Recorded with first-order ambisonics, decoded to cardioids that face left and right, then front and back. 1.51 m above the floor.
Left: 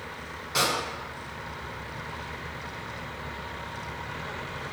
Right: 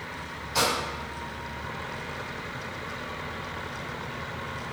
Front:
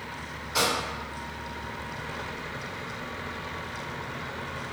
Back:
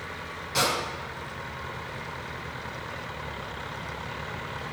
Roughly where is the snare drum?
Behind left.